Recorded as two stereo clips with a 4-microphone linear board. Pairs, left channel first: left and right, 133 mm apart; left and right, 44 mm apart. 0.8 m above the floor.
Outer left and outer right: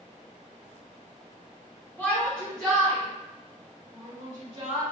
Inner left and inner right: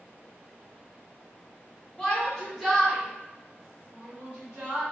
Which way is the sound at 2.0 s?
15° left (ahead or behind).